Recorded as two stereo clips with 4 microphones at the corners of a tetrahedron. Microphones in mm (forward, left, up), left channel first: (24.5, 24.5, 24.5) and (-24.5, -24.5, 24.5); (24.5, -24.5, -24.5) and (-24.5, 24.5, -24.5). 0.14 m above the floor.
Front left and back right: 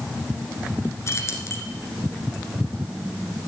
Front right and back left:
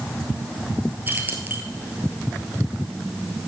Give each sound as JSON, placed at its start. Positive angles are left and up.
{"t": 1.1, "sound": "keys jangling", "azimuth_deg": 80, "distance_m": 1.5}